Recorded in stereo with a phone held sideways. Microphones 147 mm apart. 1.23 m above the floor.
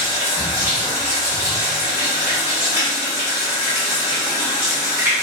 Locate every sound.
0.0 s running water: 20° right (ahead or behind), 1.4 m